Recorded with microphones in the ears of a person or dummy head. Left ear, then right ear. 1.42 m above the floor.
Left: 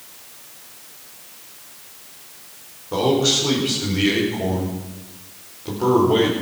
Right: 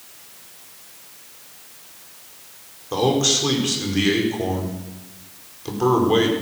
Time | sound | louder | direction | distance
2.9 | a man speaking | left 1 dB | 75° right (ahead or behind) | 5 m